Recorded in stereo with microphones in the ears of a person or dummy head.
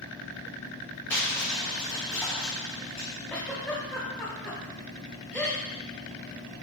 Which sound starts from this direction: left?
A fan, at 0.0 s.